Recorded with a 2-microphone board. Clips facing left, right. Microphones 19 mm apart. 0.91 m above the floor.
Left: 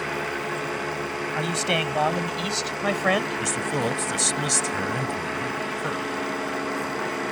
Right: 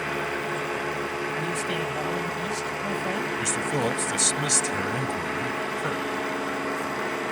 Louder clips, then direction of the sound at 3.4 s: Even; centre (ahead or behind).